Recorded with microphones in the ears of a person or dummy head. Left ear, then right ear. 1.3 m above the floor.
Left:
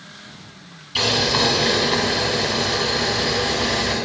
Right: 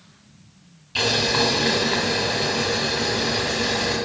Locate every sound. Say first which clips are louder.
0.9 s boiling: left 2 dB; 5° right (ahead or behind), 1.5 m